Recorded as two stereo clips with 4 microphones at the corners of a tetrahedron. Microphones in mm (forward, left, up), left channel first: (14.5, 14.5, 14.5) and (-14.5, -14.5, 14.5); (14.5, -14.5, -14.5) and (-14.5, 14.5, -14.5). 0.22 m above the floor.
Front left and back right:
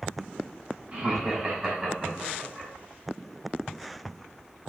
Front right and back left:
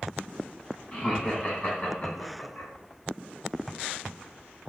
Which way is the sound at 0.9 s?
95° right.